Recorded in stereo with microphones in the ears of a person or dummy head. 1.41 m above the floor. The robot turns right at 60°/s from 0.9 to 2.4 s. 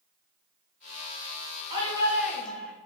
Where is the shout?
35° right, 3 m; by 2.7 s 10° left, 3 m.